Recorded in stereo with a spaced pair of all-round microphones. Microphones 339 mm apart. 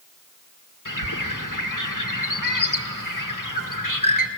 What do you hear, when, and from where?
0.8 s a bird: 75° left (ahead or behind), 1.7 m